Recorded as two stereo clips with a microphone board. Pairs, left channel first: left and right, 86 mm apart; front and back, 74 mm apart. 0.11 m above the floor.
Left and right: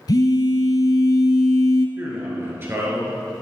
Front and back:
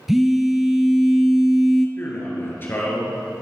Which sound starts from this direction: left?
A phone buzzing, at 0.1 s.